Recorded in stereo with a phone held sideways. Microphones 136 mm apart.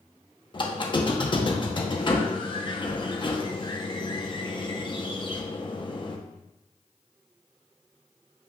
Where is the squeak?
35° left (ahead or behind), 0.6 m.